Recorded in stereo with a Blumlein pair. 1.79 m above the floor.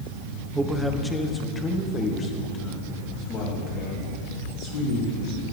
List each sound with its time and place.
0.6 s a man speaking: 10° right, 1.1 m; by 5.4 s 40° left, 5 m